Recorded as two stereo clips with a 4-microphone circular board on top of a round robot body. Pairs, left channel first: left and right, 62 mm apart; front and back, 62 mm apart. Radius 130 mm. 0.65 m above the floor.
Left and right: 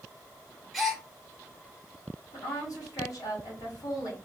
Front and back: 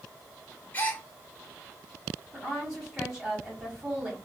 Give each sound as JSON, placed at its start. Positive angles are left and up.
{"t": 0.7, "sound": "a gasp", "azimuth_deg": 0, "distance_m": 0.9}
{"t": 2.3, "sound": "a woman speaking", "azimuth_deg": 110, "distance_m": 1.9}